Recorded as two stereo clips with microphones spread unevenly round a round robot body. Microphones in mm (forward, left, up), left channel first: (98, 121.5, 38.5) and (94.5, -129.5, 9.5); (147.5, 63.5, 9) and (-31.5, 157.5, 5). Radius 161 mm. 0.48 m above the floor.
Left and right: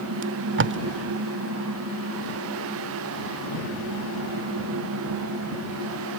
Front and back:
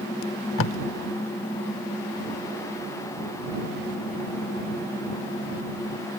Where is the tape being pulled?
55° right.